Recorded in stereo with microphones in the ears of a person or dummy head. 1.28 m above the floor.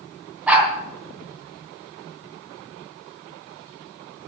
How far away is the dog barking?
About 3.5 m.